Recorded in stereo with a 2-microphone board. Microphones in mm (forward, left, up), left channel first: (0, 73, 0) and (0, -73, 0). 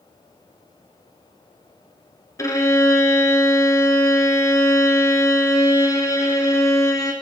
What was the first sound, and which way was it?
A violin, 25° left (ahead or behind).